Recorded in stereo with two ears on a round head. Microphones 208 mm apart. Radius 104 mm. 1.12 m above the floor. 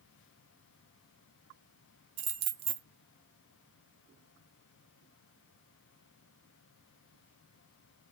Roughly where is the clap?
No clap in this recording.